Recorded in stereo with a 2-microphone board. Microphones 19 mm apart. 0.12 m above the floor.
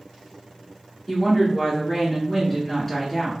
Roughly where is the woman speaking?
Centre.